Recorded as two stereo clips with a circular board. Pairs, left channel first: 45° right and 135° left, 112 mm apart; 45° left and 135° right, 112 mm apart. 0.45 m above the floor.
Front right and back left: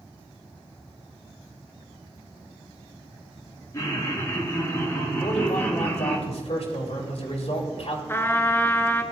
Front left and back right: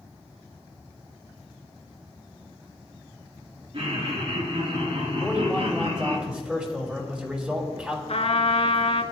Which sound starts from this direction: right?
Laughter, at 3.7 s.